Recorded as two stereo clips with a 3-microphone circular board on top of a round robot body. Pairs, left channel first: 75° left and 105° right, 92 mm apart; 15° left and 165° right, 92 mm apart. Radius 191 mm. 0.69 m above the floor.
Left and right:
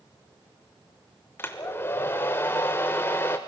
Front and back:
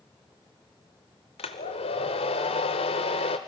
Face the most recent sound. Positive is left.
turn(degrees=10)